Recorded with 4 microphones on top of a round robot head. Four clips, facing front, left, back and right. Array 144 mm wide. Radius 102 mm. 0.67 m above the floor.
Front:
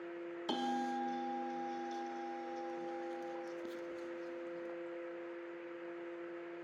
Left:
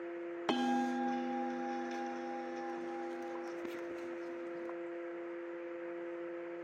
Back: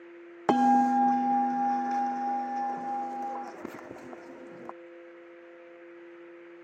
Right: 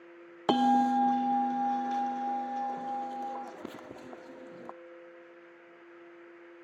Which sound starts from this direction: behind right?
A bell, at 0.5 s.